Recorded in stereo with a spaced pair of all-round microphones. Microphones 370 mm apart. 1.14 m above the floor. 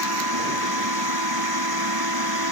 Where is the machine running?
80° right.